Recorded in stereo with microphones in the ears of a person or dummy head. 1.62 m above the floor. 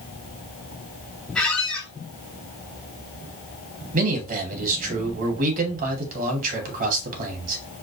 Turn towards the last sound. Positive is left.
turn(degrees=-50)  # may be behind; listen again after turning